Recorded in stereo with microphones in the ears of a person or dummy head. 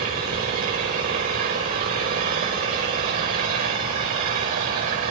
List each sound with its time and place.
0.0 s an engine running: 50° right (ahead or behind), 4 m